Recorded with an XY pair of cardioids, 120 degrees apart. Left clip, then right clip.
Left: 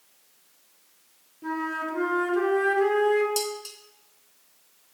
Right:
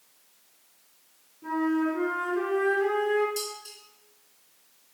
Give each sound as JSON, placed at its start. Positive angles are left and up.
{"t": 1.4, "sound": "a flute", "azimuth_deg": 35, "distance_m": 2.0}
{"t": 3.4, "sound": "dishes clattering", "azimuth_deg": 65, "distance_m": 1.2}